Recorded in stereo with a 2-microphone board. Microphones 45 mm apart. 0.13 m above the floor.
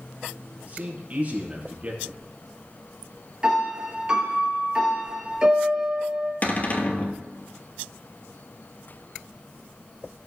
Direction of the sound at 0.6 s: 40° right (ahead or behind).